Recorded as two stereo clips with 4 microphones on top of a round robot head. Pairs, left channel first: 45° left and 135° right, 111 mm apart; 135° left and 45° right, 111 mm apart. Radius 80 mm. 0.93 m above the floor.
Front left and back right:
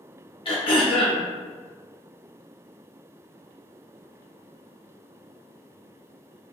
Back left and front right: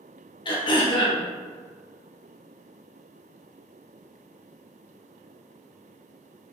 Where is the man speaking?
I don't hear a man speaking.